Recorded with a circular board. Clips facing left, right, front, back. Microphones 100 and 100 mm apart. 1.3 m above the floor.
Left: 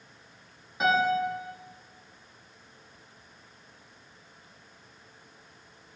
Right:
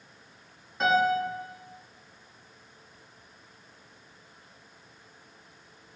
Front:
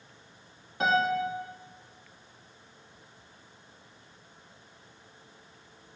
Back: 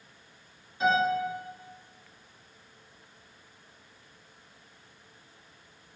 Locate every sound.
0.8 s a piano: 5° left, 1.6 m